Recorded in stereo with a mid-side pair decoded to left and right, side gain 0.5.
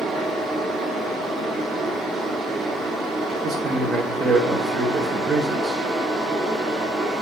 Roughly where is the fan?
Ahead right.